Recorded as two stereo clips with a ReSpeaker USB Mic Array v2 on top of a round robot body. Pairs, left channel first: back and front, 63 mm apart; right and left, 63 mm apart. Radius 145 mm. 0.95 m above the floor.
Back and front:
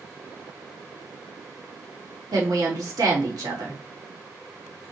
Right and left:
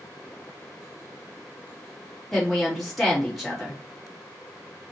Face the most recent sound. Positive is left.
turn(degrees=0)